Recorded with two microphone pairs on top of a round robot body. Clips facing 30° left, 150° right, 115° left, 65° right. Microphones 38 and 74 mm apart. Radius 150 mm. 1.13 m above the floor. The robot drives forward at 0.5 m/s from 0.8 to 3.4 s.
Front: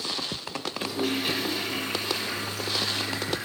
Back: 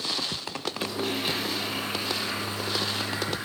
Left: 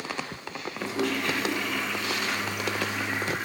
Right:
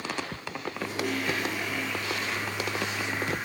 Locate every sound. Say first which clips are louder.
0.8 s a toilet flushing: front 2 dB, left 3 dB; 110° left, 2 m; by 3.5 s 140° left, 2.5 m